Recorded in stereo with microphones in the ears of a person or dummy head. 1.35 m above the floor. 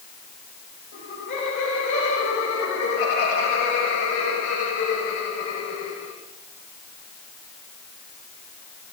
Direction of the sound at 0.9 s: 50° left (ahead or behind).